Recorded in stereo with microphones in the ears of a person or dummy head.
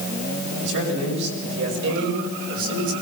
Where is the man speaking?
65° right (ahead or behind), 8.5 m; by 2.9 s 70° right (ahead or behind), 7 m.